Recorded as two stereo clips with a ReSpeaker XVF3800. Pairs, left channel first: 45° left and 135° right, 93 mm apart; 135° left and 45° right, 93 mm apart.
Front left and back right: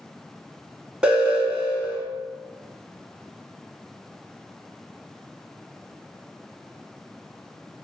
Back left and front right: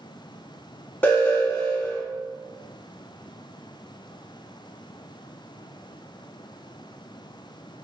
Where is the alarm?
160° left, 0.8 m.